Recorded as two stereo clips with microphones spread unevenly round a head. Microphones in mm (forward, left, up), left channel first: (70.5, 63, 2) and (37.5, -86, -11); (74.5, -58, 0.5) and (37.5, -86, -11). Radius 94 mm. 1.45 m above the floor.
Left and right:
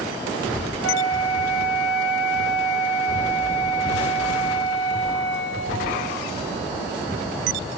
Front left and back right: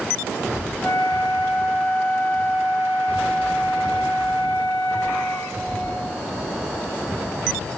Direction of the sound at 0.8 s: 5° right.